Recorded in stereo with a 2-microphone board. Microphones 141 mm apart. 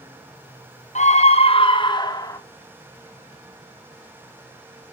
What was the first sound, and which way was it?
A scream, 55° left (ahead or behind).